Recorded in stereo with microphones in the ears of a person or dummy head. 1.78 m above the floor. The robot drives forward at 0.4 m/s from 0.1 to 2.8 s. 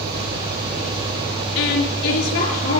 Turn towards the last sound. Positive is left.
turn(degrees=85)